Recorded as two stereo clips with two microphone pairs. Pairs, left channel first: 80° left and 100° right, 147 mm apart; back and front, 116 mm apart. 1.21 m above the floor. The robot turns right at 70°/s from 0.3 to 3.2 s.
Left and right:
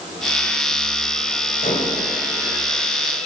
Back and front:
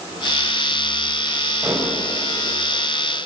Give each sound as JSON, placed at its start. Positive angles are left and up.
{"t": 1.6, "sound": "dishes clattering", "azimuth_deg": 75, "distance_m": 4.5}